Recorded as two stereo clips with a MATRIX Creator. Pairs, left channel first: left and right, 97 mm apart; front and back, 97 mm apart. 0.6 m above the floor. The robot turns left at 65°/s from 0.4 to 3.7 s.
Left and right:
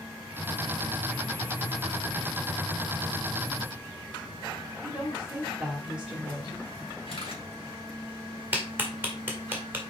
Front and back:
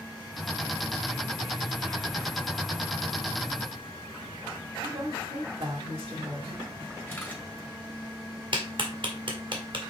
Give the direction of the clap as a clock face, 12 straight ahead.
5 o'clock.